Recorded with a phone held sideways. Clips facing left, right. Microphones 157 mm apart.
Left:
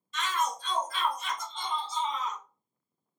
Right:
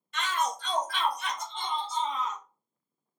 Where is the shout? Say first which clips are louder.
Right 1 dB; 65° right (ahead or behind), 0.6 m; by 2.4 s 50° right (ahead or behind), 1.4 m.